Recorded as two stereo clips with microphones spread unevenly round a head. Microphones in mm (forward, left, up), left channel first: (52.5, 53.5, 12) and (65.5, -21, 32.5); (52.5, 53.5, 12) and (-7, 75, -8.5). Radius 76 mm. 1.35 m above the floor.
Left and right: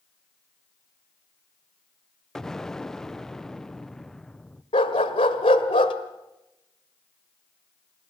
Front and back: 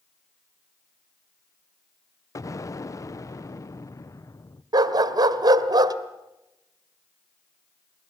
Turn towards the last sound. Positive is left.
turn(degrees=140)